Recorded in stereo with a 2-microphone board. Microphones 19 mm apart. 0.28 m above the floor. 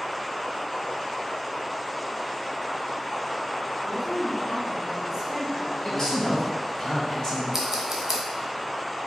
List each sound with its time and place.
3.8 s a woman speaking: 10° left (ahead or behind), 1.0 m; by 5.7 s 50° right (ahead or behind), 1.3 m
5.8 s a man speaking: 35° left (ahead or behind), 1.5 m
7.5 s scissors: 30° right (ahead or behind), 0.7 m